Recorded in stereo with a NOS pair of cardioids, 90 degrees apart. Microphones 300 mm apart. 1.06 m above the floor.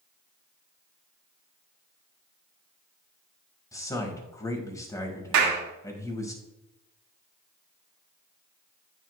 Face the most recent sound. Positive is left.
turn(degrees=-65)